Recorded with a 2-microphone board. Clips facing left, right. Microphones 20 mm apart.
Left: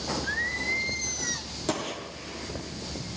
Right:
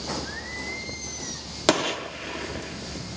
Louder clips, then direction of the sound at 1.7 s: Right 9 dB; 70° right (ahead or behind).